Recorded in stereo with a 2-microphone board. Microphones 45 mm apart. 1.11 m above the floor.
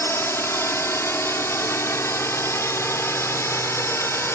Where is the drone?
60° left (ahead or behind); by 4.4 s 65° left (ahead or behind).